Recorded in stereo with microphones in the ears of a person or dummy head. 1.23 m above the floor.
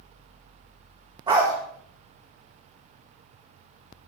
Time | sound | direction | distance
1.3 | a dog barking | 30° right (ahead or behind) | 1.5 m